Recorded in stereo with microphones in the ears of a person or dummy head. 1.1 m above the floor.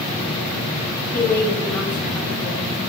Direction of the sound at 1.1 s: 15° left (ahead or behind).